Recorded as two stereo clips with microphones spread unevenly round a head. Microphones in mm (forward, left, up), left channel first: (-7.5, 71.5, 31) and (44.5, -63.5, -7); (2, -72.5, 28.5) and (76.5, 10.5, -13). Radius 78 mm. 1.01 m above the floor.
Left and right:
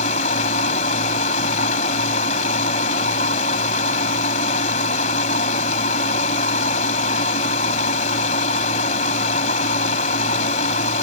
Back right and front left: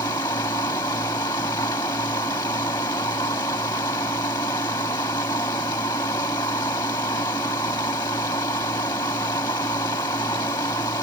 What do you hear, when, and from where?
0.0 s a machine running: 160° left